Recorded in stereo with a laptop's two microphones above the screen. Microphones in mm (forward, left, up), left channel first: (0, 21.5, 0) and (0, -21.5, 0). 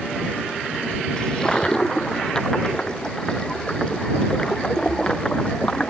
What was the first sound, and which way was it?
A toilet flushing, 20° left (ahead or behind).